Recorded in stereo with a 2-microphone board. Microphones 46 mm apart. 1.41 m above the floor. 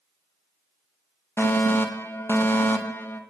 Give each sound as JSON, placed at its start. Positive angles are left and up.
{"t": 1.4, "sound": "a fire alarm", "side_deg": 55, "distance_m": 3.0}